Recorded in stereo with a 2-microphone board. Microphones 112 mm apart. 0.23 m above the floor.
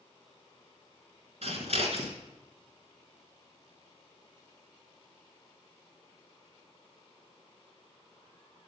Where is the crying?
No crying in this recording.